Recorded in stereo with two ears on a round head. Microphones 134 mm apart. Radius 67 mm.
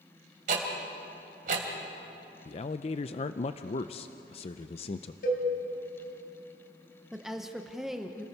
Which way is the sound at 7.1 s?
Centre (ahead or behind).